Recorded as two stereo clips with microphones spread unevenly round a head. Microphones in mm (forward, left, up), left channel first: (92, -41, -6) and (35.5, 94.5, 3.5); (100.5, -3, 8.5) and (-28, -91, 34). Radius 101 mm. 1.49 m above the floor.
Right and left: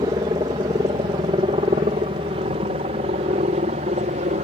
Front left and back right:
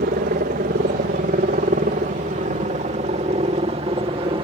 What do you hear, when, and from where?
0.0 s a helicopter: straight behind; by 4.5 s 150° left